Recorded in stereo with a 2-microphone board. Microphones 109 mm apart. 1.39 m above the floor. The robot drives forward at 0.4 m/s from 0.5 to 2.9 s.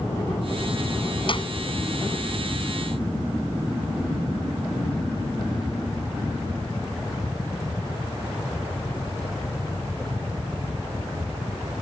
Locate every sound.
1.3 s a clap: 50° left (ahead or behind)